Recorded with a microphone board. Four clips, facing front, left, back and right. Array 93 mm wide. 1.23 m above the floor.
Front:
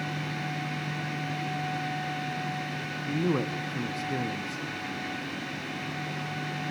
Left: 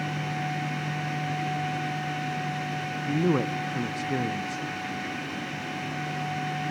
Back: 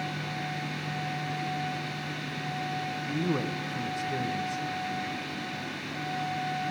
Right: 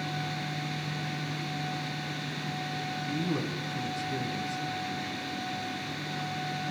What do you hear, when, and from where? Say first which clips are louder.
3.1 s a man speaking: left 9 dB, front 3 dB; 75° left, 0.8 m